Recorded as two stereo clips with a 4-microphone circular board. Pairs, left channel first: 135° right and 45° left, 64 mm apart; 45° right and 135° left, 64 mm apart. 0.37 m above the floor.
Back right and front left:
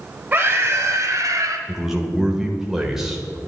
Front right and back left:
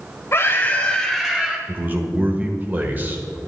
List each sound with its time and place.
0.3 s a scream: 15° right, 1.2 m; by 1.6 s 65° left, 1.6 m
1.7 s a man speaking: 120° left, 1.3 m